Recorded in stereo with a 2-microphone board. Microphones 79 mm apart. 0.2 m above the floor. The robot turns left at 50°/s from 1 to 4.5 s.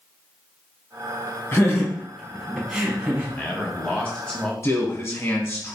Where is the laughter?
30° left (ahead or behind), 1.5 m; by 3.3 s 25° right (ahead or behind), 1.5 m.